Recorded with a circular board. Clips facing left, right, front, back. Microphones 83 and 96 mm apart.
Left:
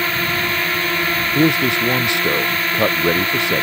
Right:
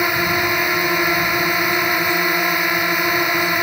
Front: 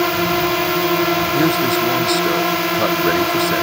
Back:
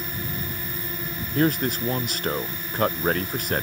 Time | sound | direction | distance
0.0 | a drone | 15° right | ?
1.4 | a man speaking | 85° left | ?